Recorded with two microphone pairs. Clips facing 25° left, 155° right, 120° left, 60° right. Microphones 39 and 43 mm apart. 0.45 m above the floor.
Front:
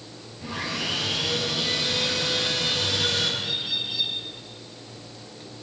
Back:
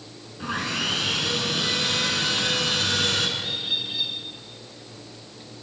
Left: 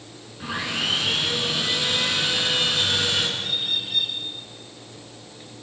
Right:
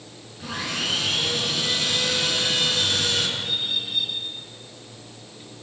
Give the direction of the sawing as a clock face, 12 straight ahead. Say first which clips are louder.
Back 3 dB, left 2 dB; 6 o'clock.